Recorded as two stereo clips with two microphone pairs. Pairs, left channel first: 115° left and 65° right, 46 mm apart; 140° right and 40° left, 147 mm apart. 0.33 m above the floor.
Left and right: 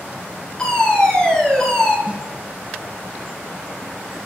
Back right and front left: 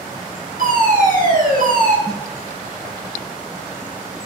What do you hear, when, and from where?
0.6 s a fire alarm: 40° left, 7.5 m
2.1 s a snare drum: 10° right, 1.5 m